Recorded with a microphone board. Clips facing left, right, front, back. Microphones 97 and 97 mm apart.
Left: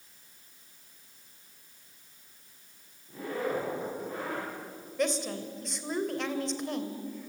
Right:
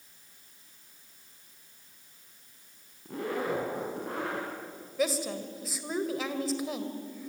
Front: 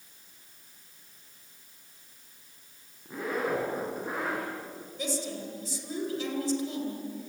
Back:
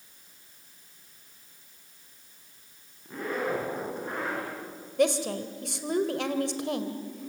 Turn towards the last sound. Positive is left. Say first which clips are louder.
# even, back 9 dB
turn(degrees=-175)